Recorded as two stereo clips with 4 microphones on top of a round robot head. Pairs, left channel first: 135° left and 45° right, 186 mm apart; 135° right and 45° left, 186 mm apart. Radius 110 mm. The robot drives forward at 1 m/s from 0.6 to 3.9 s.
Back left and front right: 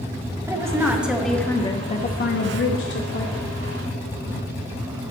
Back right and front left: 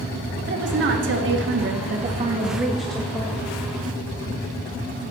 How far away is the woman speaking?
About 1.7 m.